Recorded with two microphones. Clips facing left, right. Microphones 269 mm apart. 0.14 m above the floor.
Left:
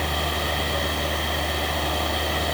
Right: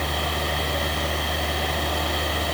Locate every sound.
Only background noise.